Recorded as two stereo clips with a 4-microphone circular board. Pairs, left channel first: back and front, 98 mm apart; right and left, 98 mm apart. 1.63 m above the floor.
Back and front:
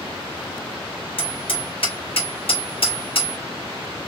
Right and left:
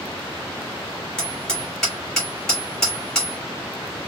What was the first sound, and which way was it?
Hammering, 170° right.